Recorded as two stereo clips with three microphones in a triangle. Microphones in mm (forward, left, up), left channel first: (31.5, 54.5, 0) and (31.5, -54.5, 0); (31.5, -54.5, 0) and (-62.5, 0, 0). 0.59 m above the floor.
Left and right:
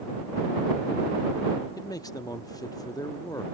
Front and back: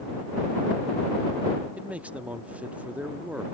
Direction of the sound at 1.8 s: 85° left.